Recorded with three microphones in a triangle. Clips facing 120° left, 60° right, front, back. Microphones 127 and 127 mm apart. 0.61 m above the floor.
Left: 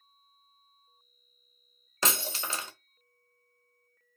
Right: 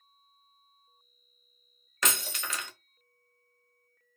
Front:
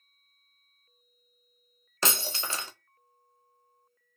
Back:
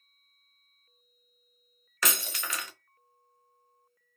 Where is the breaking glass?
65° left, 0.6 m.